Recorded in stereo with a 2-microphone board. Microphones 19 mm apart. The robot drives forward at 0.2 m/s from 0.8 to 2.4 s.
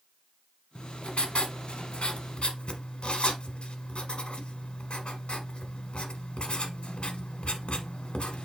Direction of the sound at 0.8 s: 80° left.